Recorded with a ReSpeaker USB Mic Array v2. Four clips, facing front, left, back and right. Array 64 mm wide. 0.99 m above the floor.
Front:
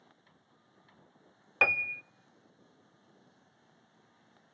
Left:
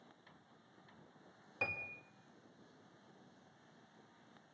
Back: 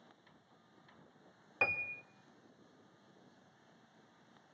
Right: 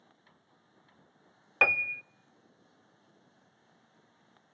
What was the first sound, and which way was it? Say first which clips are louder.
A piano: right 15 dB, front 8 dB; 60° right.